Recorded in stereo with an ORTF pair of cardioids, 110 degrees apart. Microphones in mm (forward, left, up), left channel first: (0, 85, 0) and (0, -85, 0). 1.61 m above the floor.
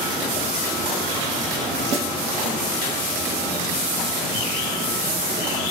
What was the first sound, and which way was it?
A snare drum, 40° right.